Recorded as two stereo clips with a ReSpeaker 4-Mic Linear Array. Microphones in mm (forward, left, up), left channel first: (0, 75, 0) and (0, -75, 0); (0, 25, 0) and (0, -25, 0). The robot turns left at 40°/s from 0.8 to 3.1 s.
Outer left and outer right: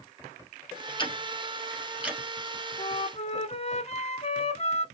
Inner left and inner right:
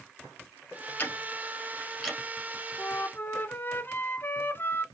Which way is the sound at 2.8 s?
35° left (ahead or behind).